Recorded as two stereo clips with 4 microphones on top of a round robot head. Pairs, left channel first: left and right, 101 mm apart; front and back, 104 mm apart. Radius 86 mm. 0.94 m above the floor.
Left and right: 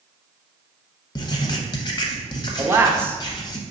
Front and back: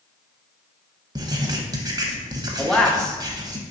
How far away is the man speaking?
About 0.5 m.